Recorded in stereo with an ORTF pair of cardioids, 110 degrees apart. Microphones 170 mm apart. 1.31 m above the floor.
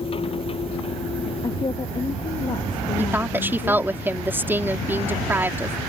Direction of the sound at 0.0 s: 35° left.